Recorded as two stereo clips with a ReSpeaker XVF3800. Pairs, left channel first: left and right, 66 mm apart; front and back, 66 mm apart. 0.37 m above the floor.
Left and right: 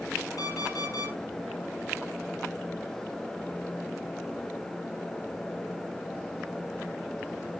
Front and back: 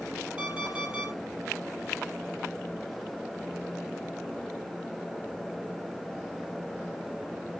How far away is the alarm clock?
About 7 m.